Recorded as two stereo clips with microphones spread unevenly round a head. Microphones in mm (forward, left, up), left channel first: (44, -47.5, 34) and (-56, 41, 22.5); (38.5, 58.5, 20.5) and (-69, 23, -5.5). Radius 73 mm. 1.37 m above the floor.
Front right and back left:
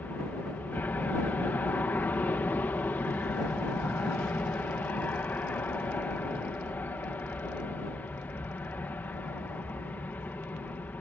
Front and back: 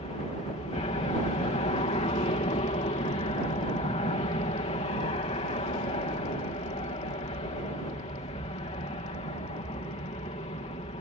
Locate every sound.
0.0 s an aircraft: 35° left